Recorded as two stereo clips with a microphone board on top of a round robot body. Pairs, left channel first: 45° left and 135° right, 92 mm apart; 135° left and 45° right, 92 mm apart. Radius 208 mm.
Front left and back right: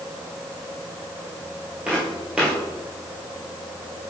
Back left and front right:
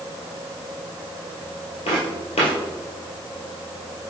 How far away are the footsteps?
About 1.5 m.